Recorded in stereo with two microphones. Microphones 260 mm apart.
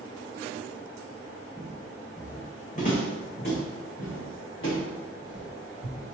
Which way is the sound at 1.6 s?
5° right (ahead or behind).